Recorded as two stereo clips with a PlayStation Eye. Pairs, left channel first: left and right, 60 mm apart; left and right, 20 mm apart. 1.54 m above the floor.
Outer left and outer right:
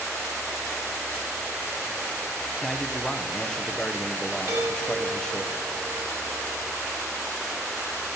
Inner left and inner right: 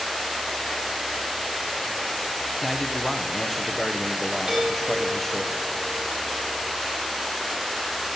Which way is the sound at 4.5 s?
50° right (ahead or behind).